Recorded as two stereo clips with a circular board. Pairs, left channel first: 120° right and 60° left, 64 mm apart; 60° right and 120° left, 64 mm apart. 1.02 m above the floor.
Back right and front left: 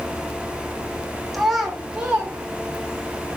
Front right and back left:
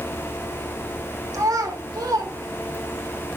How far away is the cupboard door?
I don't hear a cupboard door.